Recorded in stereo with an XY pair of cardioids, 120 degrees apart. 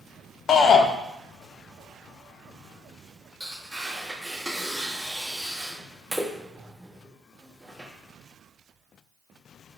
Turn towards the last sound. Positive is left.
turn(degrees=-10)